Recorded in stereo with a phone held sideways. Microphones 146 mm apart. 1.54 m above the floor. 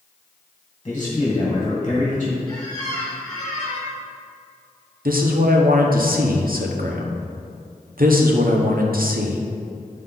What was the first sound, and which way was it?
A man speaking, 40° left (ahead or behind).